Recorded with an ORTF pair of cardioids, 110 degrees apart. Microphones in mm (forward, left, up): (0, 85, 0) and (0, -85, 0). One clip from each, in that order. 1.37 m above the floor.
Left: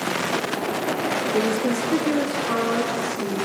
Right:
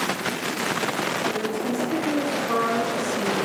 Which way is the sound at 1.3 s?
45° left.